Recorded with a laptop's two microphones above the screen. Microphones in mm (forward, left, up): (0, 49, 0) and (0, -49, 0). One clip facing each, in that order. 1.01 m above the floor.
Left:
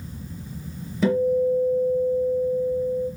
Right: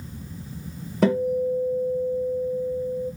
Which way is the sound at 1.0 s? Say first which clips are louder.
Left 1 dB; 60° right (ahead or behind).